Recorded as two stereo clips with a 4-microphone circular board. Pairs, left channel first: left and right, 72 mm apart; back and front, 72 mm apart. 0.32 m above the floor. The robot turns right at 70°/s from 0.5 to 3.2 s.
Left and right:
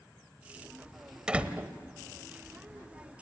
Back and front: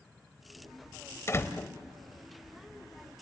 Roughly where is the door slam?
Behind.